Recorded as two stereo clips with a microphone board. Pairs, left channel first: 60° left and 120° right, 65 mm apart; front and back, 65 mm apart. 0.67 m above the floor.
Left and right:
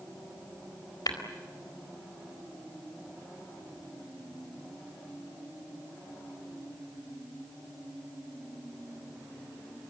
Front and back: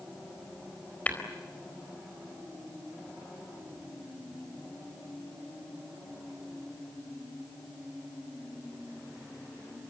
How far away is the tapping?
About 4 m.